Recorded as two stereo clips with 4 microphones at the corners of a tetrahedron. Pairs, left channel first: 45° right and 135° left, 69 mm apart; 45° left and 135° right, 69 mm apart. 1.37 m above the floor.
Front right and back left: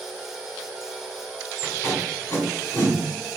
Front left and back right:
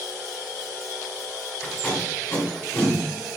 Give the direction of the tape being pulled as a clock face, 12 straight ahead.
12 o'clock.